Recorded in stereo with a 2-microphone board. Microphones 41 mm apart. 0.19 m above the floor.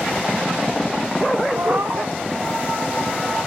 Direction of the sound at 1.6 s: 70° right (ahead or behind).